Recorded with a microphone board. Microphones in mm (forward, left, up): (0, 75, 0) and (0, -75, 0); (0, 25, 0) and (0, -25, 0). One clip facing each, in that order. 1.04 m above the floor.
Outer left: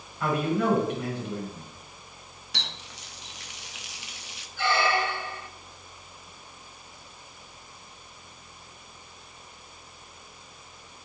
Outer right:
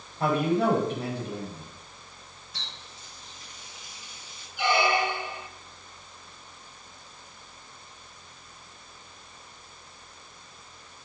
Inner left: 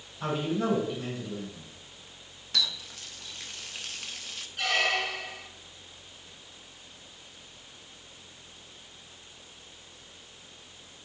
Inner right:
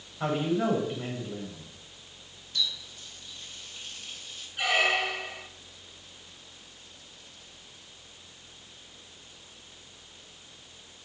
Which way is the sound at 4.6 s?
15° right (ahead or behind).